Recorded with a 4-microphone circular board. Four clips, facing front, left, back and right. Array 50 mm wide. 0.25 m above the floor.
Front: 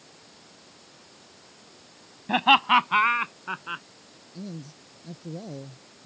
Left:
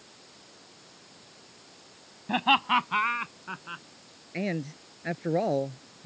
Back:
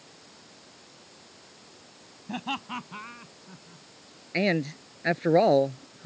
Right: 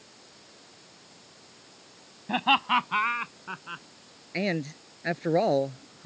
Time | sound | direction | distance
2.3 | laughter | straight ahead | ?
4.3 | a man speaking | 165° right | ?